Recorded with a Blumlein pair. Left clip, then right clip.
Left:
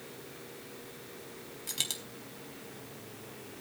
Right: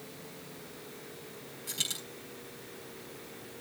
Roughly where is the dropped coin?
Ahead.